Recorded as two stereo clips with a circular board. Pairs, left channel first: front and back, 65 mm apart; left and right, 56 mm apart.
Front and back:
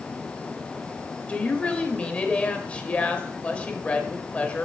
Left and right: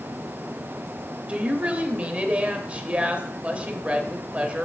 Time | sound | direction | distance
1.3 | a woman speaking | 50° right | 0.9 m